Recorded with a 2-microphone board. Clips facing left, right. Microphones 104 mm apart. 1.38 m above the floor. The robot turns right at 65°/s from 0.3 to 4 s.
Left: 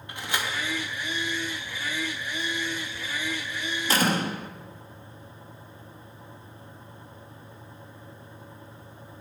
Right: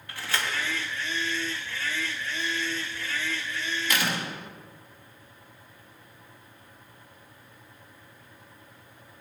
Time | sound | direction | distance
0.1 | a door slam | 20° left (ahead or behind) | 2.0 m